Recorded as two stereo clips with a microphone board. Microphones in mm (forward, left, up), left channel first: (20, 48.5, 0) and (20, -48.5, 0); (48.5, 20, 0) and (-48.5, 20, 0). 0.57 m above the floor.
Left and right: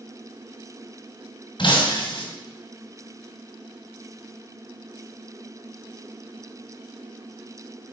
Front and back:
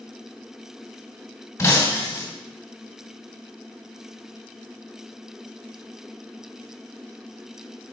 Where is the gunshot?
No gunshot in this recording.